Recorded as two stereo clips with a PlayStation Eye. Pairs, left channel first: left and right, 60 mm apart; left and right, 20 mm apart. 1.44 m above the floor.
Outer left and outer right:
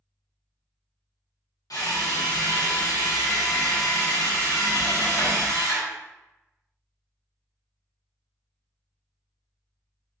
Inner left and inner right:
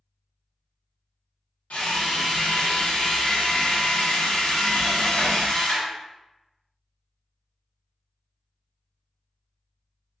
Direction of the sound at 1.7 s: 75° left (ahead or behind).